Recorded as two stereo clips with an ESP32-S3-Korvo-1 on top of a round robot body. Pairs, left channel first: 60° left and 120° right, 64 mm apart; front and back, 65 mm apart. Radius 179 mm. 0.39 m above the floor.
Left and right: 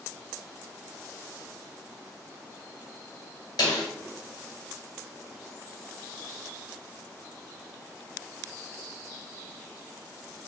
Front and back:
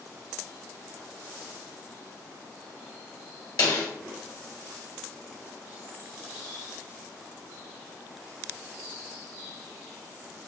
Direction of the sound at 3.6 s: 30° left.